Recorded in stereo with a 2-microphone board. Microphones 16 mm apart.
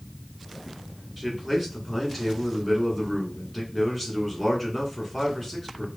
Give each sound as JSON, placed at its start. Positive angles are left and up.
{"t": 1.2, "sound": "a man speaking", "side_deg": 5, "distance_m": 1.7}